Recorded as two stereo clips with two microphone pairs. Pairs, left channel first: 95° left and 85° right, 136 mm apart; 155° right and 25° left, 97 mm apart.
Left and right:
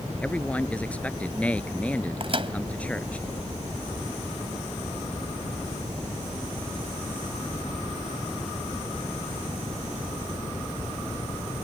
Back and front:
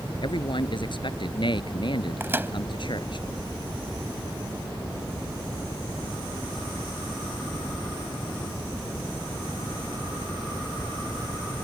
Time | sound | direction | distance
0.2 | a man speaking | 175° left | ?
2.2 | a microwave | 40° right | ?